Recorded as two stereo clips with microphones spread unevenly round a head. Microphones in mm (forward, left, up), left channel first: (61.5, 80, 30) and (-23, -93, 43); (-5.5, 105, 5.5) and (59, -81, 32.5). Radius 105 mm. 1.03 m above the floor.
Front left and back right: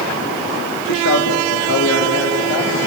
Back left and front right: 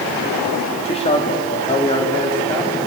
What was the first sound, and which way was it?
A man speaking, 50° left.